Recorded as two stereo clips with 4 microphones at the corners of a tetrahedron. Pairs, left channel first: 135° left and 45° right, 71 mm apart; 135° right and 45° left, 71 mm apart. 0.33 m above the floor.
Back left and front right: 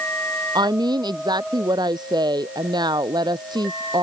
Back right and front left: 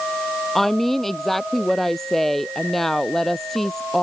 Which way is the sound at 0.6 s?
50° right.